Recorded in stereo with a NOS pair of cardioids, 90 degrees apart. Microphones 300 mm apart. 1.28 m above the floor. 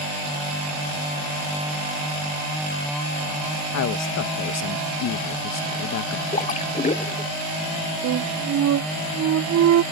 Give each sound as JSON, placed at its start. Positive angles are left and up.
{"t": 3.7, "sound": "a man speaking", "azimuth_deg": 60}
{"t": 6.3, "sound": "a splash", "azimuth_deg": 25}
{"t": 8.0, "sound": "a flute", "azimuth_deg": -65}